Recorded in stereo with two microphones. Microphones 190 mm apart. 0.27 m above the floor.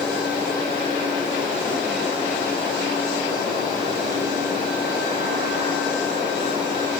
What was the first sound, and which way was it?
Only background noise.